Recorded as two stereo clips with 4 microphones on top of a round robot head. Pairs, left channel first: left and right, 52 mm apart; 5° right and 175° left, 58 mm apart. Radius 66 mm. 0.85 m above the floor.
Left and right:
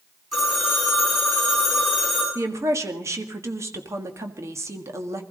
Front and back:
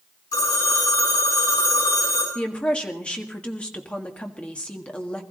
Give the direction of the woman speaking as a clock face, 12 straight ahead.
3 o'clock.